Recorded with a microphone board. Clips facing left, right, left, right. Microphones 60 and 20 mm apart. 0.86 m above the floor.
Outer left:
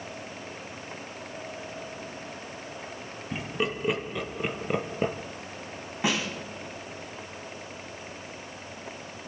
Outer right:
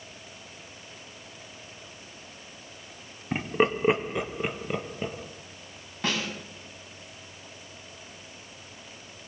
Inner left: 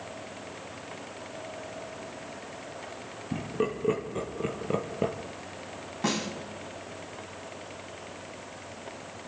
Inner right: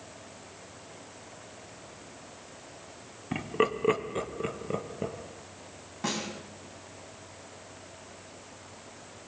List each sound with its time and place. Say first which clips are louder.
3.3 s laughter: outer right 6 dB, inner right 3 dB; 45° right (ahead or behind), 1.5 m; by 5.2 s 30° left (ahead or behind), 1.1 m
6.0 s a snare drum: outer left 2 dB, inner left 3 dB; 15° left (ahead or behind), 3 m